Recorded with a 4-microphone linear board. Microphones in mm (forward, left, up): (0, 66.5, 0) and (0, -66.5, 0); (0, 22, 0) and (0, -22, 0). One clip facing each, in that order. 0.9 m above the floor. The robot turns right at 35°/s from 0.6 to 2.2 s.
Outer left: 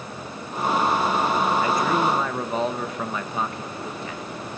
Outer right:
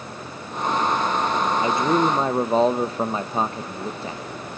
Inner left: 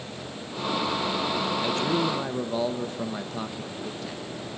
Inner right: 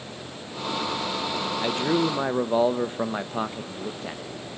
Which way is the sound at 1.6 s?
20° right (ahead or behind).